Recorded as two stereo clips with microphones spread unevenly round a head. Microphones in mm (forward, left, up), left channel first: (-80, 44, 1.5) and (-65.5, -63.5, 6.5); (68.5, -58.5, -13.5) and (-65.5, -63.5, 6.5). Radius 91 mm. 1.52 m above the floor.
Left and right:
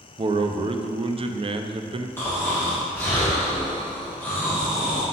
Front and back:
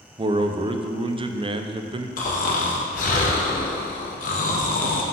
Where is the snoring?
20° left, 0.8 m.